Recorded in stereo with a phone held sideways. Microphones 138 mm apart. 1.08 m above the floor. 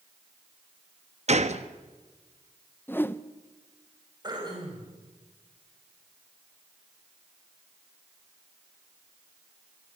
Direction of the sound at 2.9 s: 15° left (ahead or behind).